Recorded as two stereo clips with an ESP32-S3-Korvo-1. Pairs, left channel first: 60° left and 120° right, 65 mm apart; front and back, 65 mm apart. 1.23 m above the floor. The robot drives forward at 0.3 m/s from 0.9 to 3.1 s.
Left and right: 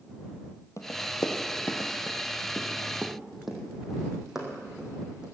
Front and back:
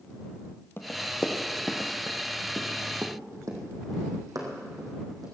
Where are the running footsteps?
45° left, 1.9 m; by 5.2 s 160° left, 4.5 m.